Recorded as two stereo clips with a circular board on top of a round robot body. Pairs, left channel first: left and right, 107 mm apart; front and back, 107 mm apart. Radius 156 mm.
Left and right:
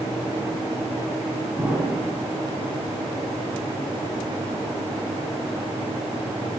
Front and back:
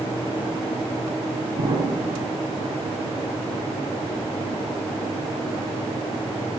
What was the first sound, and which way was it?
An explosion, 170° right.